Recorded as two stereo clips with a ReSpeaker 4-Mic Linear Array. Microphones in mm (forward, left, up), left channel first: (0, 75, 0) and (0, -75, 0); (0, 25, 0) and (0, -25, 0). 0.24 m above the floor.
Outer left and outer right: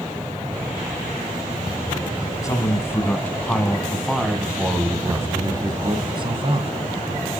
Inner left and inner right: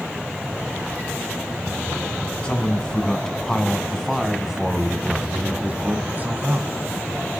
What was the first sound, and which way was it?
A man speaking, 20° left (ahead or behind).